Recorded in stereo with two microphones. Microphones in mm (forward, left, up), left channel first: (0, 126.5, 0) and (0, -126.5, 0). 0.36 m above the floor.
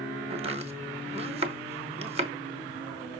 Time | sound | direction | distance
0.3 | chopping | 25° right (ahead or behind) | 1.1 m